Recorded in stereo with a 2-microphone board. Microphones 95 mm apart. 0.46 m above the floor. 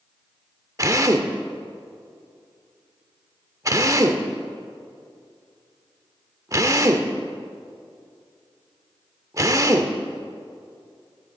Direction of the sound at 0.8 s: 35° right (ahead or behind).